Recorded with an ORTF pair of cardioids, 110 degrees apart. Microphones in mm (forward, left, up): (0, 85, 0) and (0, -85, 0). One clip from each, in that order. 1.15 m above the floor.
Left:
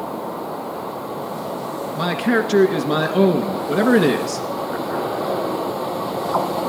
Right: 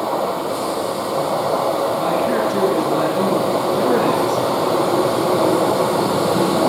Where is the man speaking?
65° left, 1.7 m.